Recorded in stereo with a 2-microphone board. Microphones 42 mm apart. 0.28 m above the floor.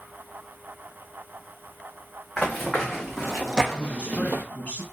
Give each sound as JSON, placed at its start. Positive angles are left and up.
{"t": 2.4, "sound": "running footsteps", "side_deg": 10, "distance_m": 1.7}
{"t": 3.7, "sound": "a man speaking", "side_deg": 30, "distance_m": 1.2}